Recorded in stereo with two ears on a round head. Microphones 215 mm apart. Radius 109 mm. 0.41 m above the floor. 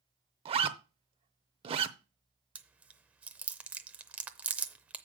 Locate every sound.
0.5 s a zipper: 25° right (ahead or behind), 0.7 m
2.5 s chewing: 5° right (ahead or behind), 0.6 m